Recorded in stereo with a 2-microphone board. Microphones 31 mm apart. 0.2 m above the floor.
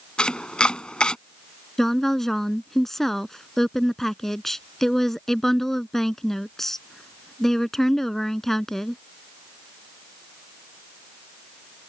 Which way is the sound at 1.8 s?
15° left (ahead or behind).